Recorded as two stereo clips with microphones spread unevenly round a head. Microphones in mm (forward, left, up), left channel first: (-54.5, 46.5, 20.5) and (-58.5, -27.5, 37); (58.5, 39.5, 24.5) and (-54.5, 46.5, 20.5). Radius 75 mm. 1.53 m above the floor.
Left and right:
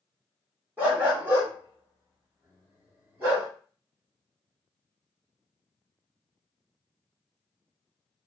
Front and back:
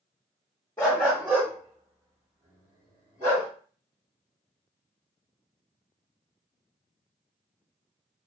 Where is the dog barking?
60° right, 1.0 m; by 3.5 s 150° right, 2.5 m.